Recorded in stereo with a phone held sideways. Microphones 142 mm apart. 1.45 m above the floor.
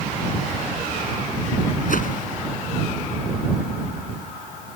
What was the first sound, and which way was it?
A whoosh, 70° left (ahead or behind).